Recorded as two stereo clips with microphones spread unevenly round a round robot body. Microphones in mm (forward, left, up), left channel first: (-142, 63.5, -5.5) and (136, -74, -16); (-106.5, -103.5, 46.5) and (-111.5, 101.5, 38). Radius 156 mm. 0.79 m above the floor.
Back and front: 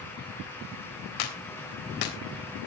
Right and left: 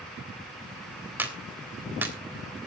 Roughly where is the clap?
Behind.